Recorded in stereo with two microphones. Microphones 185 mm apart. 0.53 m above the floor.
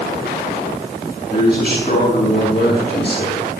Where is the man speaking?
55° left (ahead or behind), 7 m; by 3.5 s 60° left (ahead or behind), 8 m.